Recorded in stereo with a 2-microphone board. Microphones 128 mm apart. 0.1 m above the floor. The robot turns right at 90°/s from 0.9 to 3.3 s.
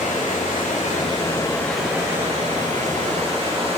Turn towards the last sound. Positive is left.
turn(degrees=-40)